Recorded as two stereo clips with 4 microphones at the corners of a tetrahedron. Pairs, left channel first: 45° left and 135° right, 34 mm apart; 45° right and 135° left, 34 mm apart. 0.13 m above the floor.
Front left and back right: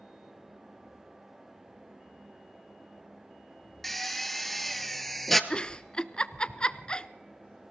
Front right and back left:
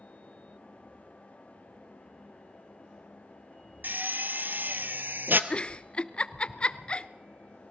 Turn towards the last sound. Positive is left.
turn(degrees=-5)